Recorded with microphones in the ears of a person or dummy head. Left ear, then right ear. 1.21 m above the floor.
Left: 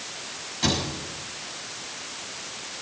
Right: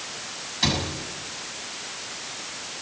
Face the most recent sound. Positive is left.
turn(degrees=-20)  # may be behind; listen again after turning